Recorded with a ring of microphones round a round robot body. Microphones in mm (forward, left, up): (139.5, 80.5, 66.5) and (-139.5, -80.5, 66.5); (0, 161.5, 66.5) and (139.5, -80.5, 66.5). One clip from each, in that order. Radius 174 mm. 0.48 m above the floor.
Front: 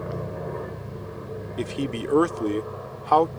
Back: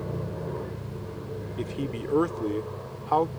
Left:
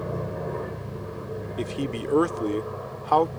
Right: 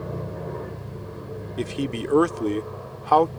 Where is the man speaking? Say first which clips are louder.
Front 4 dB, right 3 dB; 5° left.